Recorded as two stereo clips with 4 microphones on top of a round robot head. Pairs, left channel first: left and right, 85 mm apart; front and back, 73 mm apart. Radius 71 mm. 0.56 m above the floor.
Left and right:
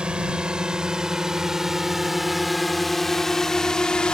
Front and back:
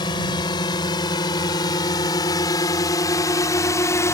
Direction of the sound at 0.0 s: 10° right.